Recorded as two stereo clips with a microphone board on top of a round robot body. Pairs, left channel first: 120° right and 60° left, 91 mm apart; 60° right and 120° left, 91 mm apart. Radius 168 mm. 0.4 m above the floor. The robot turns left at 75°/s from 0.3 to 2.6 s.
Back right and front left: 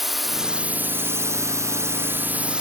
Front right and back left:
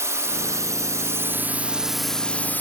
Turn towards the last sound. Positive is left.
turn(degrees=-10)